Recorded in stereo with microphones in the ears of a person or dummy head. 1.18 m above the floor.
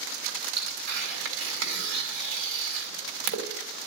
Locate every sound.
0.6 s tearing paper: 75° right (ahead or behind), 4 m